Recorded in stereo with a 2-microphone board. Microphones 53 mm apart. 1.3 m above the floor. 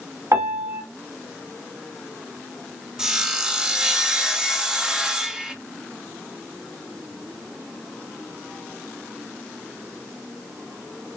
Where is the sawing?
15° right (ahead or behind), 0.7 m.